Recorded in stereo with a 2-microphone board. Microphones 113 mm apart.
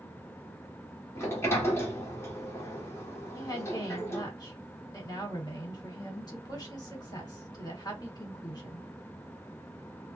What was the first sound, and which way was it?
A sliding door, 25° left (ahead or behind).